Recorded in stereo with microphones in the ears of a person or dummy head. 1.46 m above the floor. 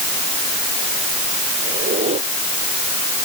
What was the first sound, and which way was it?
A squeak, 35° right (ahead or behind).